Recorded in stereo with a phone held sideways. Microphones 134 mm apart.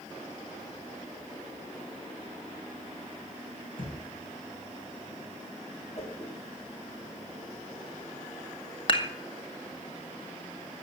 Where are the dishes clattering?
40° left (ahead or behind), 1.8 m.